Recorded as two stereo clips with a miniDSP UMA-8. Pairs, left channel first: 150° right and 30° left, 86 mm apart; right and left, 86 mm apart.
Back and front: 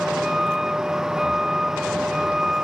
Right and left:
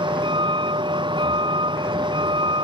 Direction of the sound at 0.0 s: 115° left.